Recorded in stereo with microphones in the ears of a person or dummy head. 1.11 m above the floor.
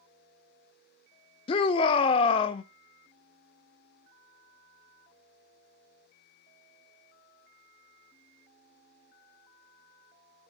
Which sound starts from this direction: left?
A shout, at 1.5 s.